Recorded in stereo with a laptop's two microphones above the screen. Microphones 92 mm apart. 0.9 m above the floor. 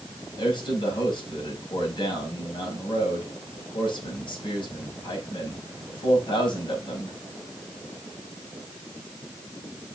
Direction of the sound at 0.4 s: 60° left (ahead or behind).